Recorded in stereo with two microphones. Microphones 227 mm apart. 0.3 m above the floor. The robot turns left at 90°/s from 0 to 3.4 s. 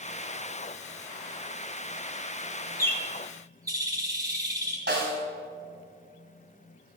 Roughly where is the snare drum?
Right.